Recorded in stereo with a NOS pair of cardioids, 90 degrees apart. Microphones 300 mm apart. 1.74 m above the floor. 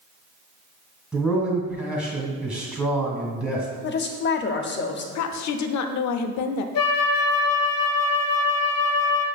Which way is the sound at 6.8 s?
60° left.